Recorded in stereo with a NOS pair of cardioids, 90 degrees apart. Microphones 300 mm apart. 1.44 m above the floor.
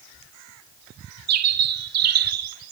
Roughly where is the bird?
Ahead right.